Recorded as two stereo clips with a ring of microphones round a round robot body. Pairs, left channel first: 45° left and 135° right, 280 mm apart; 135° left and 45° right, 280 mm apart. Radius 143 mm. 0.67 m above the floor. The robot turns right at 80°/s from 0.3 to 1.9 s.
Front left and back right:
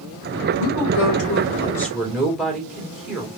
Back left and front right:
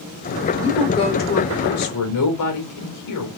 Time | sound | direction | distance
0.6 | a woman speaking | 30° left | 2.5 m